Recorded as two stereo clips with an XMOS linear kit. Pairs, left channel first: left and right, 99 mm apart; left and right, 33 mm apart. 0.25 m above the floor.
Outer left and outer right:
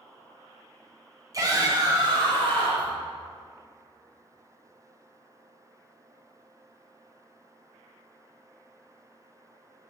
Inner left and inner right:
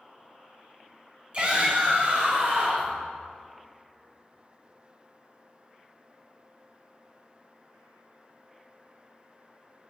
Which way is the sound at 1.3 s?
35° right (ahead or behind).